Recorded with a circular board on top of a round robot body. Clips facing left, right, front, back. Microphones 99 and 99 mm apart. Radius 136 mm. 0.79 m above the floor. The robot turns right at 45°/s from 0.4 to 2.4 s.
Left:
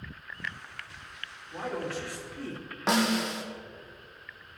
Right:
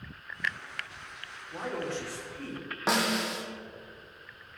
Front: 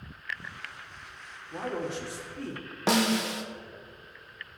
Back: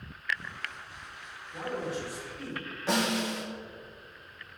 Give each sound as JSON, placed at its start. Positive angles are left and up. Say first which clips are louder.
{"t": 1.5, "sound": "a man speaking", "louder": "even, front 1 dB", "azimuth_deg": -10, "distance_m": 2.0}
{"t": 2.9, "sound": "a snare drum", "louder": "left 2 dB, front 3 dB", "azimuth_deg": 0, "distance_m": 0.8}